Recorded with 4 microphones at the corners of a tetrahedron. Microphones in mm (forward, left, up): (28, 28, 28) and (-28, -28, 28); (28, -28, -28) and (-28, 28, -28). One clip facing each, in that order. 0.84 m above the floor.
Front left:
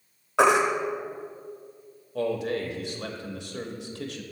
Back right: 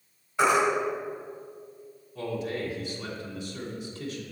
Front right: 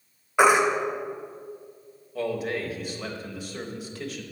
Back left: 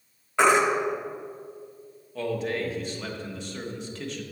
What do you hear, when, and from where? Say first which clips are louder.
0.4 s a baby crying: front left 3 dB, front right 1 dB; 30° left, 0.8 m
2.1 s a man speaking: front left 4 dB, even; 40° left, 1.0 m